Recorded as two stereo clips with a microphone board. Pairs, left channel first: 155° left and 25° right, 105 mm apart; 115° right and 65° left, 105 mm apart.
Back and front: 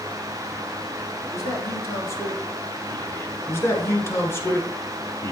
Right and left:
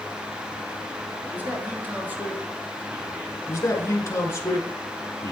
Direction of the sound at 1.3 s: 125° left.